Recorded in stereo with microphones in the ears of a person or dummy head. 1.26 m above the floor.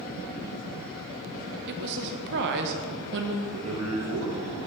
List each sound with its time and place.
1.7 s a woman speaking: 60° right (ahead or behind), 0.8 m
3.4 s a man speaking: 80° right, 1.4 m